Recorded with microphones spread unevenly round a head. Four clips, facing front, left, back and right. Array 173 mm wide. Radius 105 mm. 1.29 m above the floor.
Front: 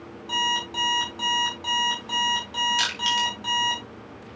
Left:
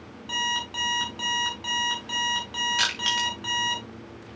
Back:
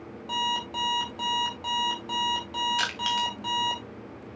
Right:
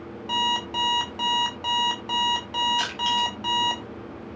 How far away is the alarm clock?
About 1.3 m.